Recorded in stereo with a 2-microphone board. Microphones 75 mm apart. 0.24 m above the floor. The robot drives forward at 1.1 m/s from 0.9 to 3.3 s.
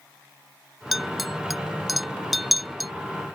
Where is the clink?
5° right (ahead or behind); by 2.9 s centre (ahead or behind).